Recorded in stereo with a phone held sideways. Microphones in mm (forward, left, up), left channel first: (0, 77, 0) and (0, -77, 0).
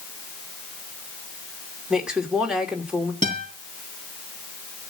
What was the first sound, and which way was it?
A woman speaking, 5° right (ahead or behind).